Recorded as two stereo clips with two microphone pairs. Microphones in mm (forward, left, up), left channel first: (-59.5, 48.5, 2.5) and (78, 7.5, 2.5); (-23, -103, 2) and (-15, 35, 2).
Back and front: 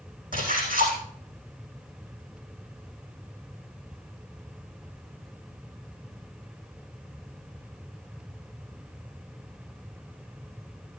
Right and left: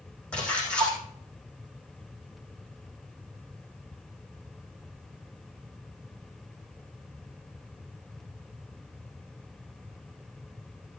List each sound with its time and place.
0.3 s a splash: 10° right, 4.5 m